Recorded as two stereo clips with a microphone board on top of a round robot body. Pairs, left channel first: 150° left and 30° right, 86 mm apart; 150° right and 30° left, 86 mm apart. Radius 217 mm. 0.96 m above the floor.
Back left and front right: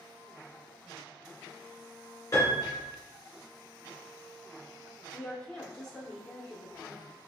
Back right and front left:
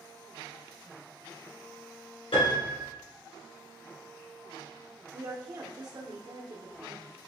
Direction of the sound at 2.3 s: 150° right.